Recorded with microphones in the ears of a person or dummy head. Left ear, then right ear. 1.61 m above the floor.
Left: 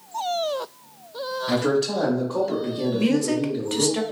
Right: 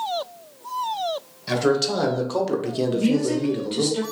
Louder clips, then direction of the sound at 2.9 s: Left 2 dB; 40° left (ahead or behind).